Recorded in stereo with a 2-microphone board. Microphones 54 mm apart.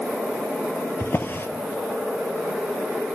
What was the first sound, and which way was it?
A drawer, 45° left (ahead or behind).